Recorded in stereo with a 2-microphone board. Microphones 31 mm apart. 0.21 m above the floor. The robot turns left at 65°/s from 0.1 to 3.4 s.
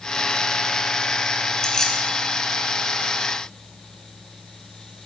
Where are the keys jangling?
20° left (ahead or behind), 0.9 m; by 2.0 s 15° left (ahead or behind), 0.9 m.